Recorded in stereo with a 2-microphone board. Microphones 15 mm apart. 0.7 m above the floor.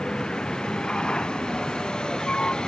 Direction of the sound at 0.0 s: 65° left (ahead or behind).